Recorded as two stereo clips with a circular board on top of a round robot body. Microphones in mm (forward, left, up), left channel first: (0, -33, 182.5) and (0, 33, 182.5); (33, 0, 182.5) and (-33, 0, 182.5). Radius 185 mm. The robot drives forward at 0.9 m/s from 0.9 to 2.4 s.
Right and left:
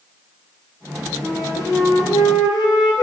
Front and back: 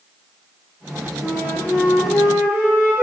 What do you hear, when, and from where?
1.2 s a flute: 50° right, 1.3 m; by 3.0 s 105° right, 1.1 m